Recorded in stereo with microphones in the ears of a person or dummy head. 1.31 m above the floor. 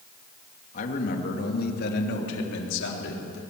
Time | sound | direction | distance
0.7 | a man speaking | 45° left (ahead or behind) | 2.5 m